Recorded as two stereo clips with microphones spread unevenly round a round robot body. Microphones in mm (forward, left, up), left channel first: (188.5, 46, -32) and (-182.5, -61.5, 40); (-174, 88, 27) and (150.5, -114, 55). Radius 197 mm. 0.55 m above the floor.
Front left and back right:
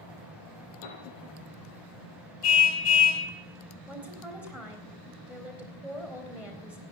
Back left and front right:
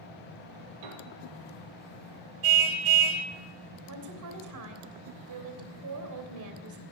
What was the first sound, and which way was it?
A piano, 10° right.